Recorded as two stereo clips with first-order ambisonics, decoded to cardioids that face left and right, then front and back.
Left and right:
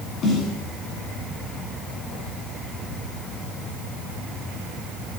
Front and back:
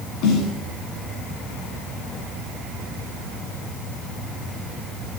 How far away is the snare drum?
About 10 m.